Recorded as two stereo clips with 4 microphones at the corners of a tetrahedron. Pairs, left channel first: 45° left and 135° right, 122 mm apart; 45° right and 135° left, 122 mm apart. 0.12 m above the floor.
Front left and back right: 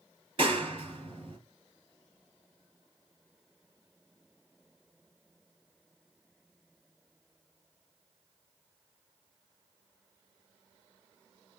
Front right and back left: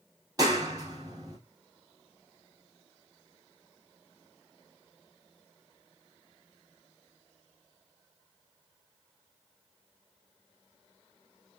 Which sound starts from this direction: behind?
A clap, at 0.4 s.